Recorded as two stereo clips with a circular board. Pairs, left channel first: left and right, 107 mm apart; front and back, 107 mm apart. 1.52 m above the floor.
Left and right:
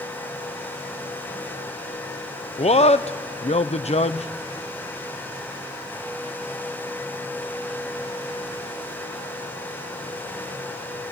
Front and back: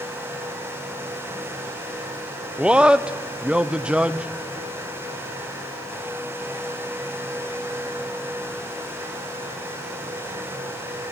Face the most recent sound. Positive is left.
turn(degrees=100)